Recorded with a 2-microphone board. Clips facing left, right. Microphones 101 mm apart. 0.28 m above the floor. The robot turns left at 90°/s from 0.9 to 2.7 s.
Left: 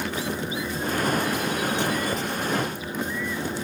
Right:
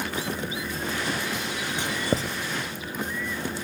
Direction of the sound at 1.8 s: 15° right (ahead or behind).